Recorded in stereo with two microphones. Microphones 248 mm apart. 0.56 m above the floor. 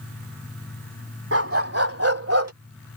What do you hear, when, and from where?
1.3 s a dog barking: 60° right (ahead or behind); by 2.5 s 70° right (ahead or behind)